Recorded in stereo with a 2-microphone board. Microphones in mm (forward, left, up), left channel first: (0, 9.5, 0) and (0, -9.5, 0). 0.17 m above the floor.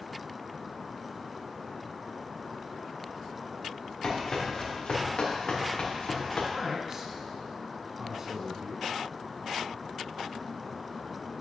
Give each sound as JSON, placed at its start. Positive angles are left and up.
{"t": 4.0, "sound": "running footsteps", "side_deg": 35, "distance_m": 3.0}
{"t": 6.5, "sound": "a man speaking", "side_deg": -30, "distance_m": 1.6}